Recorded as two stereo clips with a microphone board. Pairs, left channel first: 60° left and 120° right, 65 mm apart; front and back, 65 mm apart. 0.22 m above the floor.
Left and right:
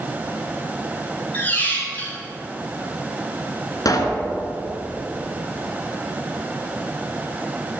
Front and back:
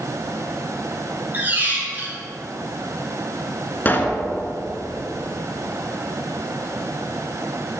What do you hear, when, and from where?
1.3 s a squeak: 120° left, 2.0 m
3.9 s a pop: 55° left, 1.0 m